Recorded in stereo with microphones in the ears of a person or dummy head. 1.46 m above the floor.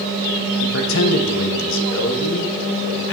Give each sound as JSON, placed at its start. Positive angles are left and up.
{"t": 0.6, "sound": "a man speaking", "side_deg": 65, "distance_m": 1.0}